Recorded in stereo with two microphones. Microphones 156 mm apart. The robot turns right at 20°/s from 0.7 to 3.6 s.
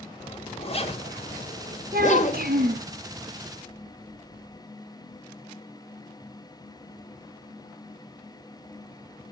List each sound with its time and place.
0.2 s a zipper: 40° left (ahead or behind), 1.4 m; by 2.8 s 50° left (ahead or behind), 1.4 m
1.9 s a child speaking: 75° right (ahead or behind), 2 m; by 2.9 s 70° right (ahead or behind), 2 m